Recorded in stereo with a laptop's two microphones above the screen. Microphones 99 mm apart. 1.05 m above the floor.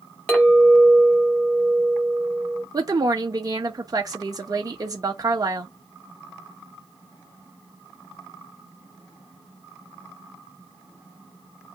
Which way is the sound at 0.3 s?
10° left (ahead or behind).